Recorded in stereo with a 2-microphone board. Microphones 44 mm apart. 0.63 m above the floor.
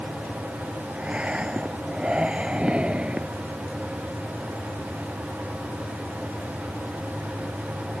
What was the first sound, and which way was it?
Breathing, 20° right (ahead or behind).